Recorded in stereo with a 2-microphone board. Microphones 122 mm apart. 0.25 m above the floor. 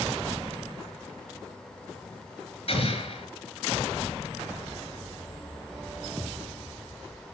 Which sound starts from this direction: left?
An explosion, at 2.7 s.